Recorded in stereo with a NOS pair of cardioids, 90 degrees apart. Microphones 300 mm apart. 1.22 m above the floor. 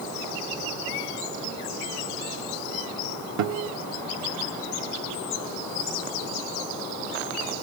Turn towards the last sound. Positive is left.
turn(degrees=-70)